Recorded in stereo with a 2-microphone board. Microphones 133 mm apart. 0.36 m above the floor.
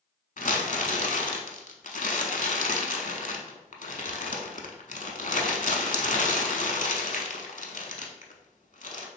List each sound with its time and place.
0.4 s crumpling: 80° left, 0.7 m